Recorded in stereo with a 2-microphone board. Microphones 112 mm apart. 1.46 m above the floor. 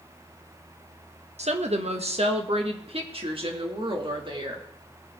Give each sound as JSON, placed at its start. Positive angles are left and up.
{"t": 1.4, "sound": "a woman speaking", "side_deg": -75, "distance_m": 1.3}